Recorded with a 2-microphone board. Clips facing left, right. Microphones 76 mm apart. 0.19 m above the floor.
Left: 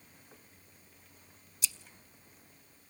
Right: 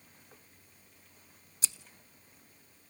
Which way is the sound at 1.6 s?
35° right (ahead or behind).